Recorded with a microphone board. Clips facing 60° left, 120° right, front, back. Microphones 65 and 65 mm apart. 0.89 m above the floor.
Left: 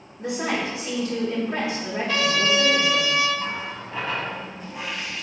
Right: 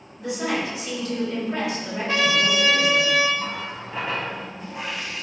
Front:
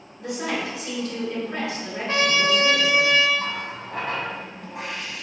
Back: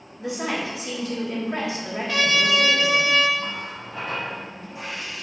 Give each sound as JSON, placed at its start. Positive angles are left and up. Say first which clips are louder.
{"t": 0.2, "sound": "a woman speaking", "louder": "even, even", "azimuth_deg": 120, "distance_m": 1.5}
{"t": 2.1, "sound": "a trumpet", "louder": "right 1 dB, front 1 dB", "azimuth_deg": -55, "distance_m": 0.6}
{"t": 3.4, "sound": "a running tap", "louder": "even, front 2 dB", "azimuth_deg": -40, "distance_m": 0.7}